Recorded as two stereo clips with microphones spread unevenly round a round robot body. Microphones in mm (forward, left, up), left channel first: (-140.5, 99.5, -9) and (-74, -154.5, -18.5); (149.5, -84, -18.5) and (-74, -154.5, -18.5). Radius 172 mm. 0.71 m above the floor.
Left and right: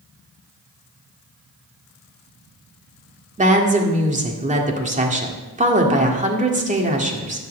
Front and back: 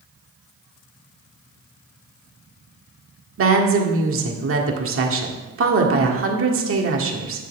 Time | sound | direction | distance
3.4 | a woman speaking | 135° right | 1.8 m